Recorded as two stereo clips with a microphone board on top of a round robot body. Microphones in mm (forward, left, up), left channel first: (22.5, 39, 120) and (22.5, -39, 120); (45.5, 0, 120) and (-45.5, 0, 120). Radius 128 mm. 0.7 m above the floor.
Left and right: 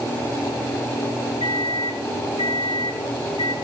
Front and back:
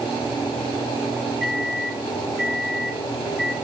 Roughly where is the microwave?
Left.